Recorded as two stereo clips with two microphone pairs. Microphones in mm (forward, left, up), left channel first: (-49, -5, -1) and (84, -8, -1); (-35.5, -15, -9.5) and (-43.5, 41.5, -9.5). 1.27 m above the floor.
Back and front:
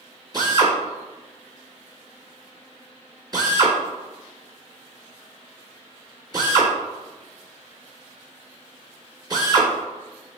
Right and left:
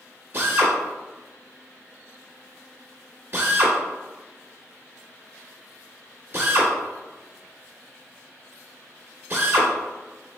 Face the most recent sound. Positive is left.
turn(degrees=55)